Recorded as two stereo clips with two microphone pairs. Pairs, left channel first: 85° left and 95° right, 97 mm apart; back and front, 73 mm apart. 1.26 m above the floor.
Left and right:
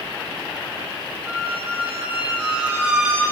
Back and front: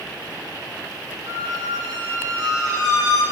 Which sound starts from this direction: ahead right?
A squeak, at 1.3 s.